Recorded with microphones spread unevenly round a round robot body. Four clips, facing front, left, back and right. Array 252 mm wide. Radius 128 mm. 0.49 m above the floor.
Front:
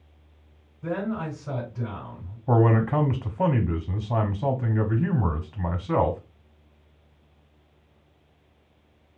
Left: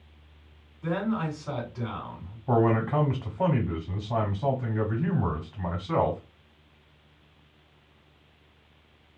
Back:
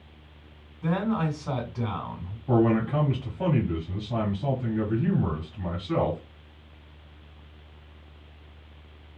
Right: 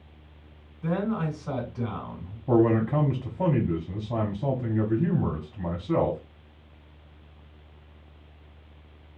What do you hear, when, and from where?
0.8 s a man speaking: straight behind, 1.9 m
2.5 s a man speaking: 5° right, 1.0 m